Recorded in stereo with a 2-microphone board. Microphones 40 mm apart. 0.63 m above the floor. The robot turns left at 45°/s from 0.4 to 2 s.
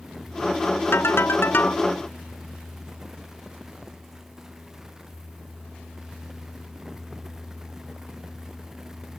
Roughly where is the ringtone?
Left.